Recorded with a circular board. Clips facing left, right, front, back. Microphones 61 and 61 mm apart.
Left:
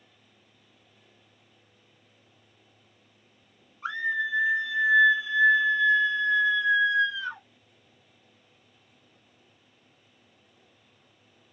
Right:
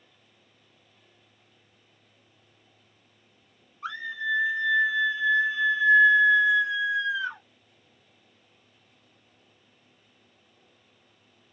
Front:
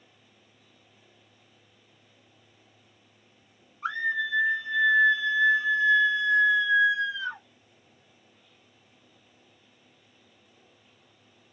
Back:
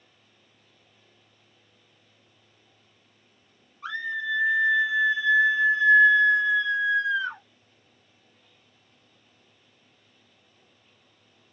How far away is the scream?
About 1.1 m.